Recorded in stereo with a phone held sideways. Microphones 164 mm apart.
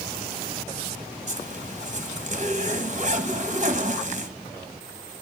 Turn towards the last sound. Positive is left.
turn(degrees=-45)  # may be behind; listen again after turning